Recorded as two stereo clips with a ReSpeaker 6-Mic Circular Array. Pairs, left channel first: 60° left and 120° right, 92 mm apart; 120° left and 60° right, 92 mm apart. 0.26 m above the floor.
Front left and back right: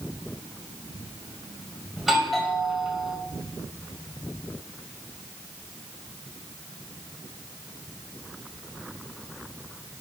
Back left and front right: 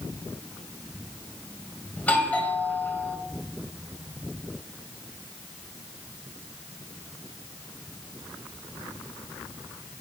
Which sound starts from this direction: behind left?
A doorbell, at 2.0 s.